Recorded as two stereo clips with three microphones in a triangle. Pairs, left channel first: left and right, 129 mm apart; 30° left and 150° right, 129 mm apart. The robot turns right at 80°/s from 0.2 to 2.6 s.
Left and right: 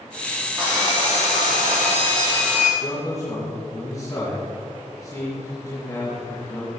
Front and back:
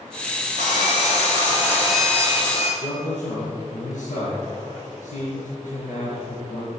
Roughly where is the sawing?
Behind.